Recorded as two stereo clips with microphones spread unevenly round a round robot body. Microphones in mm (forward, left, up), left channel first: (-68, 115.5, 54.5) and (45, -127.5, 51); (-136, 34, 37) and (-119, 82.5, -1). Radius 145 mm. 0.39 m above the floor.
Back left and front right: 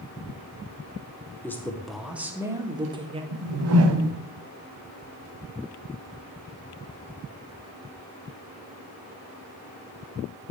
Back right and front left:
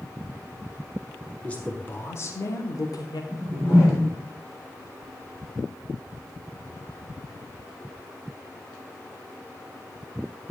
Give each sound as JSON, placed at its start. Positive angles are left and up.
{"t": 1.4, "sound": "a man speaking", "azimuth_deg": 45, "distance_m": 1.5}
{"t": 3.3, "sound": "a whoosh", "azimuth_deg": -30, "distance_m": 1.4}